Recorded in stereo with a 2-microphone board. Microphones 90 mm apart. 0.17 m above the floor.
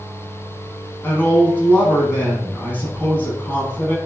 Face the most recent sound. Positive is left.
turn(degrees=20)  # may be behind; listen again after turning